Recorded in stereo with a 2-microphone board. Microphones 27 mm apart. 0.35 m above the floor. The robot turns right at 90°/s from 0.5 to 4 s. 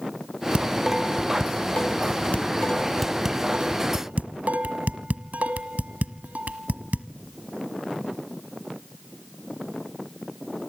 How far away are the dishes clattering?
About 1.5 m.